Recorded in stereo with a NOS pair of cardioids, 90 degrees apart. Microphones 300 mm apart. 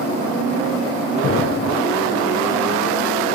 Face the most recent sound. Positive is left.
turn(degrees=40)